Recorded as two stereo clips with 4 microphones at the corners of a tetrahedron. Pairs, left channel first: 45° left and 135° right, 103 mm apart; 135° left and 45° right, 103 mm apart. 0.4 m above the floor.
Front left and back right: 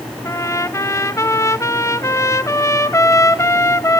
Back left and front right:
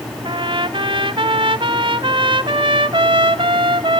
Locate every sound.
0.2 s a trumpet: 15° right, 1.0 m